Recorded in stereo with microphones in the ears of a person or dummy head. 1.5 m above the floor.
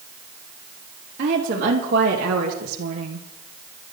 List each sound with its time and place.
1.2 s a woman speaking: 45° right (ahead or behind), 3 m; by 3.3 s 65° right (ahead or behind), 1.4 m